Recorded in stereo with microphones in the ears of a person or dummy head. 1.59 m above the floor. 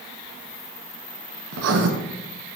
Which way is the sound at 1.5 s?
70° right (ahead or behind).